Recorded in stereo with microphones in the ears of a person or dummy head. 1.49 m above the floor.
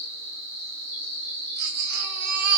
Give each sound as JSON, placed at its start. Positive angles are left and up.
{"t": 0.0, "sound": "an insect", "side_deg": -60, "distance_m": 1.3}
{"t": 1.6, "sound": "a baby crying", "side_deg": -60, "distance_m": 0.7}